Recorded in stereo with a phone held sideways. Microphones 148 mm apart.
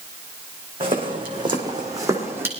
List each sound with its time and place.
0.8 s footsteps: 35° right (ahead or behind), 3.5 m; by 2.5 s 15° right (ahead or behind), 2.5 m